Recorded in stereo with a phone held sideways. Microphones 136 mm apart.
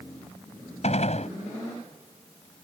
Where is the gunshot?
55° left (ahead or behind).